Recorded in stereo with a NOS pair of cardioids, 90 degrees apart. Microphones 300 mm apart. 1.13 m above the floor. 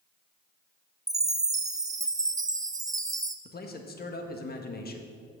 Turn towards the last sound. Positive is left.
turn(degrees=35)